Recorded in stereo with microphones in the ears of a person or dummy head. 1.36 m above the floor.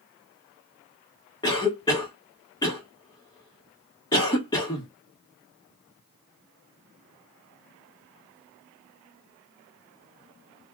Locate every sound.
1.4 s a cough: 15° left (ahead or behind), 1.4 m